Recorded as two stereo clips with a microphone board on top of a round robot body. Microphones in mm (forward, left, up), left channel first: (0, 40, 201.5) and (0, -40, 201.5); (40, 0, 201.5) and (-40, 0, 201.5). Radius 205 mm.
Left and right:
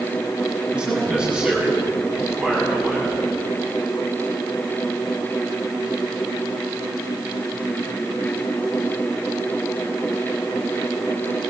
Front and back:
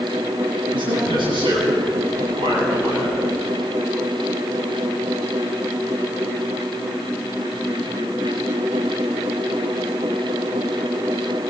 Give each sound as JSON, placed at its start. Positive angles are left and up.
{"t": 0.7, "sound": "a man speaking", "azimuth_deg": -165, "distance_m": 8.0}